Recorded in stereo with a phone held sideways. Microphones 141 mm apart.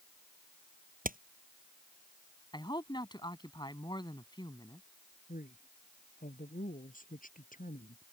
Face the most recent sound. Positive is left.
turn(degrees=75)  # may be behind; listen again after turning